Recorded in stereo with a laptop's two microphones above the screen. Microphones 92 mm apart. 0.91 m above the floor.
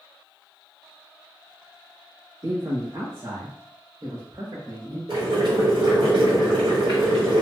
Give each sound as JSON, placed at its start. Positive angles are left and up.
{"t": 2.4, "sound": "a man speaking", "side_deg": -70, "distance_m": 1.8}
{"t": 5.1, "sound": "boiling", "side_deg": -75, "distance_m": 1.7}